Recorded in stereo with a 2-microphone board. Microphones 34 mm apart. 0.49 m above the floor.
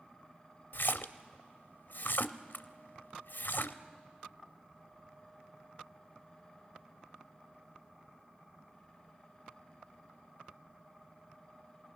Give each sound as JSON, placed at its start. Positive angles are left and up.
{"t": 0.7, "sound": "a splash", "side_deg": 75, "distance_m": 0.5}